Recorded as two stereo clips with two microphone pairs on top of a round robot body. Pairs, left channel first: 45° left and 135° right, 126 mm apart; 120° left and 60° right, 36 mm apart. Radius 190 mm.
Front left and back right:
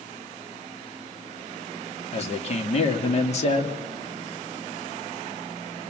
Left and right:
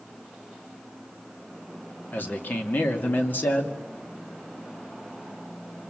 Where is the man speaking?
80° left, 2 m.